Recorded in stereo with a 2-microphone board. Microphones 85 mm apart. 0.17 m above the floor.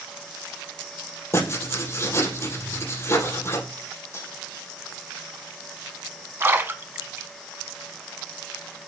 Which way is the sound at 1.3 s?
35° left (ahead or behind).